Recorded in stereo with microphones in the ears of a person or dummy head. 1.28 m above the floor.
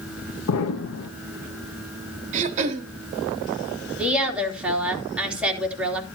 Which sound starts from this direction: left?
An explosion, at 0.5 s.